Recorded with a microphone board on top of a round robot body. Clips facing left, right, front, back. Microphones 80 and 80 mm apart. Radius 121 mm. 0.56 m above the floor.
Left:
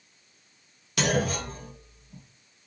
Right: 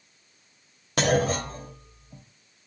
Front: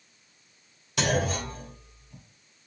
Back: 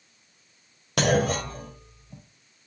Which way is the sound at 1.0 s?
145° right.